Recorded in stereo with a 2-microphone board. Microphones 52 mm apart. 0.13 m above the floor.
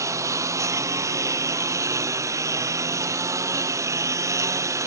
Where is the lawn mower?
85° right; by 4.9 s 80° right.